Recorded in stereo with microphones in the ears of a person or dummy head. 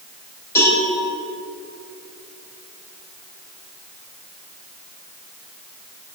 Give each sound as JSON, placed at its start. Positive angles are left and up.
{"t": 0.6, "sound": "a cowbell", "side_deg": 15, "distance_m": 4.5}